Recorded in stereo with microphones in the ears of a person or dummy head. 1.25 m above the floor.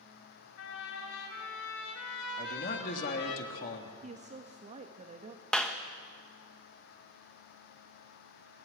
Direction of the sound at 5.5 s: 5° left (ahead or behind).